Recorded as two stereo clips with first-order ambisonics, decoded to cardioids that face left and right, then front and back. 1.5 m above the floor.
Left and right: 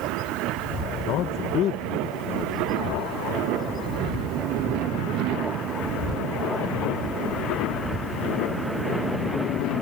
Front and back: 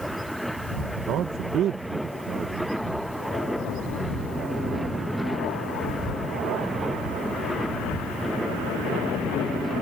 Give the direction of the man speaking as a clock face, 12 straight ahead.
8 o'clock.